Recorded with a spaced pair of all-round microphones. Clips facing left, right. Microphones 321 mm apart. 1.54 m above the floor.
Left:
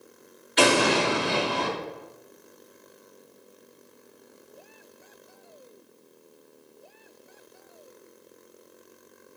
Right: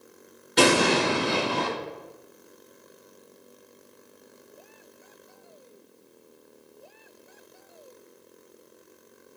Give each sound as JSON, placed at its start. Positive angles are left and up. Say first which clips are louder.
{"t": 0.6, "sound": "an explosion", "louder": "right 1 dB", "side_deg": -55, "distance_m": 1.5}